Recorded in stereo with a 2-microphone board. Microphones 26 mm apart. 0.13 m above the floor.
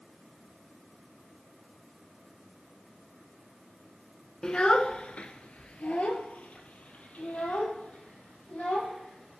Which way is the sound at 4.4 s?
30° left (ahead or behind).